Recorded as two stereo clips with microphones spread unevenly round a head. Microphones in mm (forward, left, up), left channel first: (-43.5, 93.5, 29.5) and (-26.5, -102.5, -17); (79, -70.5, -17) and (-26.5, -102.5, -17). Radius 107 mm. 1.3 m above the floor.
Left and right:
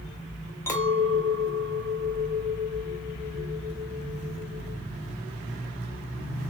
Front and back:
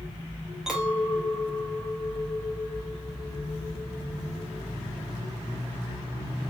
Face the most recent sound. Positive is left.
turn(degrees=115)